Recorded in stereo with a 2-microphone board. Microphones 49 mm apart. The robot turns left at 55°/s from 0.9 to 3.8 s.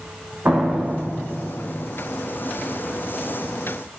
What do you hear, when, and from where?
0.5 s a door slam: 130° right, 9.5 m; by 1.9 s 175° left, 9.5 m